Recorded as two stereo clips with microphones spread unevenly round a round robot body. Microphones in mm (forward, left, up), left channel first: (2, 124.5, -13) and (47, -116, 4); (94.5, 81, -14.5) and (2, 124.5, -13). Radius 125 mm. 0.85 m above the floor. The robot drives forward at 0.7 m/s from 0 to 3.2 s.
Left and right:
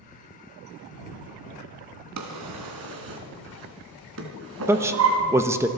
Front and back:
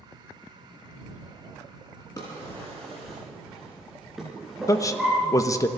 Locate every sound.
2.2 s a drawer: 100° right, 2 m; by 5.2 s 115° right, 2.5 m
4.7 s a man speaking: straight ahead, 0.9 m